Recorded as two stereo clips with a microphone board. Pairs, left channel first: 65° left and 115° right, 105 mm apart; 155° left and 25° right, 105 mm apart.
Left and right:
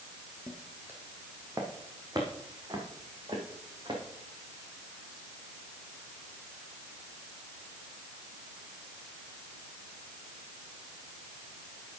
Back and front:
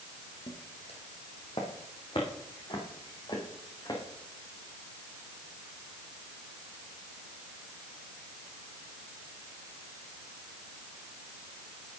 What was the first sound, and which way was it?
Footsteps, 170° left.